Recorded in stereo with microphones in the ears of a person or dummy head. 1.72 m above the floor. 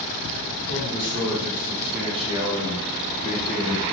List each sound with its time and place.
0.7 s a man speaking: 80° right, 1.2 m; by 3.8 s 40° left (ahead or behind), 1.0 m